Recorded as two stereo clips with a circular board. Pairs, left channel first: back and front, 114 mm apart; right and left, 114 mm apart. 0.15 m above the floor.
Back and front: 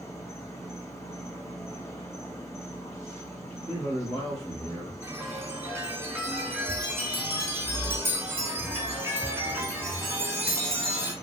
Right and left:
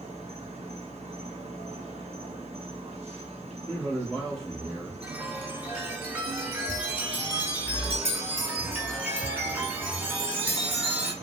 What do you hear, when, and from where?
0.0 s an insect: 115° left, 0.8 m
3.7 s a man speaking: 170° right, 1.4 m
5.0 s a chime: 35° left, 0.8 m